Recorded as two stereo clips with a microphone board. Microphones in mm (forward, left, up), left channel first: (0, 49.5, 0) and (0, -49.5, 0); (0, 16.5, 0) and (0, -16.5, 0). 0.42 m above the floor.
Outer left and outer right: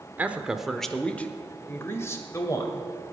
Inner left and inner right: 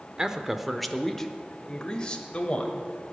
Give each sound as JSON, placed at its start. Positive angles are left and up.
{"t": 0.2, "sound": "a man speaking", "side_deg": -20, "distance_m": 0.8}